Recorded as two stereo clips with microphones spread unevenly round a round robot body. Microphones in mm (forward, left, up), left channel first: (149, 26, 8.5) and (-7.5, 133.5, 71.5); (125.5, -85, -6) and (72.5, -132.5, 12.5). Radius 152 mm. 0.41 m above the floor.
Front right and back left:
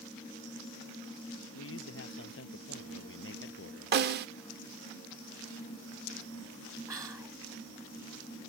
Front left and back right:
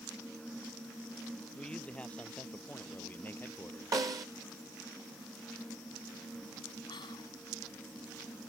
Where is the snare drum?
175° left.